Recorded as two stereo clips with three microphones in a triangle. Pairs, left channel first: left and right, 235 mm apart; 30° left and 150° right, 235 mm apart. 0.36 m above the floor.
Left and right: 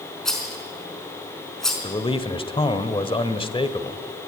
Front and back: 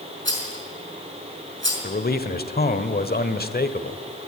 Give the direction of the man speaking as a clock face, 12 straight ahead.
11 o'clock.